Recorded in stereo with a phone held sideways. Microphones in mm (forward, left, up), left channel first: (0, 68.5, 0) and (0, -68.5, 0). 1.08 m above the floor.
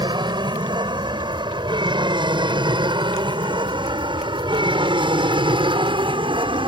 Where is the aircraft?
35° right (ahead or behind); by 6.7 s 40° right (ahead or behind).